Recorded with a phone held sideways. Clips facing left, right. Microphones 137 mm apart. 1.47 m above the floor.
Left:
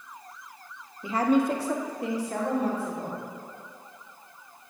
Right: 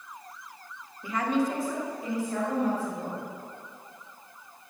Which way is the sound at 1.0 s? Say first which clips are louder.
Left 4 dB; 20° left (ahead or behind).